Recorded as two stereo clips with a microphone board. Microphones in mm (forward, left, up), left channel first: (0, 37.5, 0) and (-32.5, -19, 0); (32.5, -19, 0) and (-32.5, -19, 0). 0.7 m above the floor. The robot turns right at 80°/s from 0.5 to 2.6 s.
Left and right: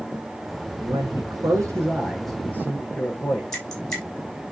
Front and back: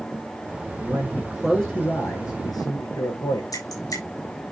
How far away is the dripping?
About 6 m.